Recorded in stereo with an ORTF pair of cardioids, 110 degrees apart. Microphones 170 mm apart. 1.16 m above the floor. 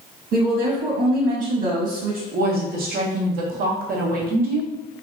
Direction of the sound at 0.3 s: 55° right.